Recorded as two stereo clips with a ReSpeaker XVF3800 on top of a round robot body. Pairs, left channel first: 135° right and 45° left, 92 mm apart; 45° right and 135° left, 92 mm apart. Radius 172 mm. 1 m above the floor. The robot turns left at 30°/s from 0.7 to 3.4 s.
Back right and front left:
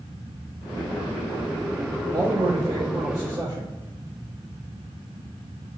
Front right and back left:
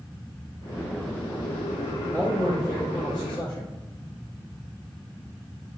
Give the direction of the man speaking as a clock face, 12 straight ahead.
11 o'clock.